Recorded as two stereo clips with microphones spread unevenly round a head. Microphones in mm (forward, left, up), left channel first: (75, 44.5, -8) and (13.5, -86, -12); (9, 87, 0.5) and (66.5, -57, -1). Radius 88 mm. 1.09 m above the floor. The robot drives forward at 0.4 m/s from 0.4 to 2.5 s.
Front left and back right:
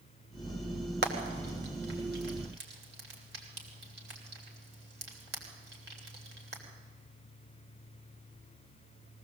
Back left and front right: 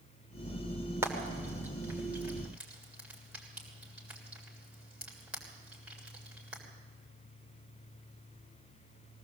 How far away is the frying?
About 2.5 m.